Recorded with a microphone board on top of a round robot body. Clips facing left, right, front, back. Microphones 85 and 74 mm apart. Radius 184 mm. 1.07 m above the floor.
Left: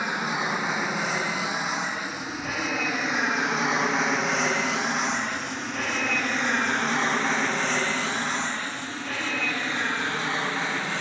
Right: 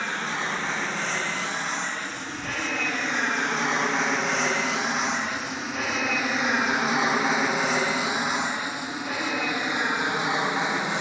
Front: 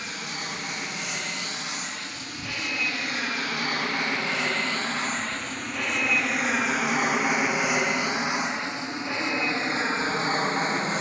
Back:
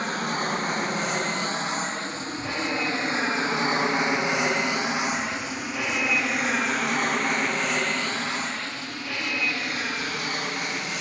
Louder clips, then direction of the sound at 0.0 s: Left 2 dB, back 8 dB; 165° left.